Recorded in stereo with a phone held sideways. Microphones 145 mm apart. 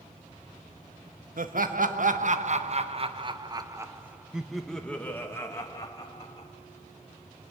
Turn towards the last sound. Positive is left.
turn(degrees=30)  # may be behind; listen again after turning